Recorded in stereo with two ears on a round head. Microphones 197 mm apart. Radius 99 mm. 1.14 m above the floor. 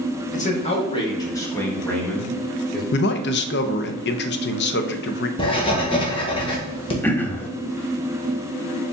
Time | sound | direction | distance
0.3 | a man speaking | 35° left (ahead or behind) | 1.3 m
2.9 | a man speaking | 50° left (ahead or behind) | 0.6 m
5.4 | writing | 25° left (ahead or behind) | 1.3 m
7.0 | throat clearing | 10° left (ahead or behind) | 0.7 m